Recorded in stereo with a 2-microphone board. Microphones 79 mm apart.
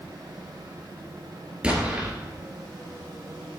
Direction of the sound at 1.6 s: 15° right (ahead or behind).